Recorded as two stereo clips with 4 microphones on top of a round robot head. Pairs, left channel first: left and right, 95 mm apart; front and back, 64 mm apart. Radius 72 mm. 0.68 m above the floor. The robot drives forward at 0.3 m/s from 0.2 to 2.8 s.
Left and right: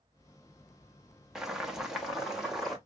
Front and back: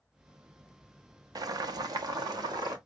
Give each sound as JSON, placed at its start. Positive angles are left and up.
{"t": 1.4, "sound": "boiling", "azimuth_deg": -175, "distance_m": 0.6}